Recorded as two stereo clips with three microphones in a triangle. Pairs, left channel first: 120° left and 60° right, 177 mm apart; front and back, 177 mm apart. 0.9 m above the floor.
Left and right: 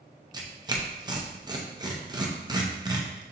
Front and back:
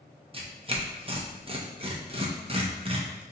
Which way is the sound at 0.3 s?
125° right.